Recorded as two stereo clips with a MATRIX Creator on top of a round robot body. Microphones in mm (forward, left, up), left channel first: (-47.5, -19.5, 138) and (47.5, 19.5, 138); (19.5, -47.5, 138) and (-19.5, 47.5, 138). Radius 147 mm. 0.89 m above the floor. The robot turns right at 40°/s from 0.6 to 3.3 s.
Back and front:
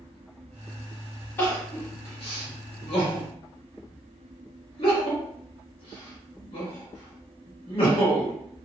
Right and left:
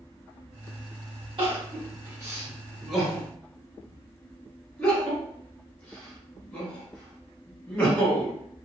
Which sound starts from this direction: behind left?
Crying, at 1.4 s.